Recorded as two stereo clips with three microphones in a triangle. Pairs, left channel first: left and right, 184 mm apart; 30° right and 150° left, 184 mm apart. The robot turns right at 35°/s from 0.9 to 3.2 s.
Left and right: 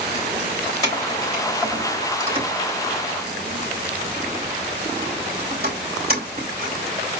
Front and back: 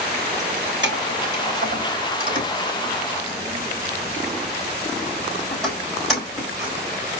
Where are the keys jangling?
160° left, 3.5 m; by 6.7 s 120° right, 3.5 m.